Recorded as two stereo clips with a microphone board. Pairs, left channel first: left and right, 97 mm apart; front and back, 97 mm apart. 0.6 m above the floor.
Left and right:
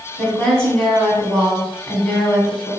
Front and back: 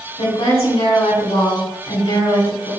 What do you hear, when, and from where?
0.2 s a woman speaking: 5° left, 4 m